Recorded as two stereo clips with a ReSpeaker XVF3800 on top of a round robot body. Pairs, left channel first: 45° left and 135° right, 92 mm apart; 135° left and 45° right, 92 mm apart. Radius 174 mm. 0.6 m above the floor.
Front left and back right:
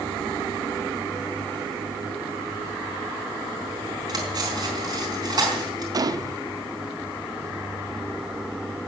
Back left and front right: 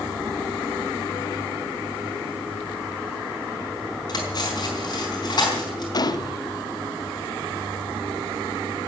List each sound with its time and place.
4.1 s cutlery clinking: straight behind, 4.5 m
5.9 s a gunshot: straight behind, 1.0 m